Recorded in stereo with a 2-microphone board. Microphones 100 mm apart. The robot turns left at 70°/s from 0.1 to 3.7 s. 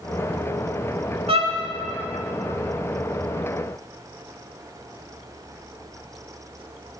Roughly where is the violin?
Right.